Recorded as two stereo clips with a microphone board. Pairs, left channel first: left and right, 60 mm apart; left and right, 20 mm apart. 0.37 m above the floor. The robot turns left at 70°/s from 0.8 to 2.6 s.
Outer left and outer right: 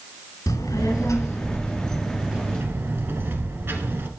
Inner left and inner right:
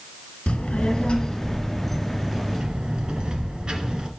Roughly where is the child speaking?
Left.